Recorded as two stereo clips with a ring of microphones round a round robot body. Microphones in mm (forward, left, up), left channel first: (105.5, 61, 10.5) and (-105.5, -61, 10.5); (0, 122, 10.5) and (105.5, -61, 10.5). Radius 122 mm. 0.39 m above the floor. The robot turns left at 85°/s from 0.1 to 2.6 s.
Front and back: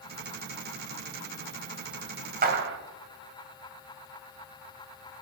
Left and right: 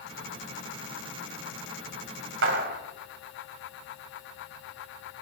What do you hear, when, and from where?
2.4 s a clap: 95° right, 1.4 m; by 2.8 s 110° right, 1.4 m